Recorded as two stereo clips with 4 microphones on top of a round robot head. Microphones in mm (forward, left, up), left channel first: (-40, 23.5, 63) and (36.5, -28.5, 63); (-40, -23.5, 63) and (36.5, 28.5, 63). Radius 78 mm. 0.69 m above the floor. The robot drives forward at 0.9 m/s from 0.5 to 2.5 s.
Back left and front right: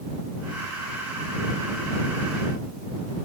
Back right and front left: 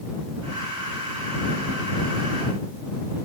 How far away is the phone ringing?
No phone ringing in this recording.